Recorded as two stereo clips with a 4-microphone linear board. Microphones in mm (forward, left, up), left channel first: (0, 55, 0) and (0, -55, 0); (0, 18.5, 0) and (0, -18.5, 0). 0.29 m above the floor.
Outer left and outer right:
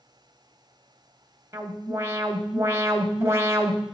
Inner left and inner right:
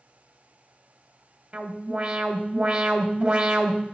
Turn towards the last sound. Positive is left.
turn(degrees=-25)  # may be behind; listen again after turning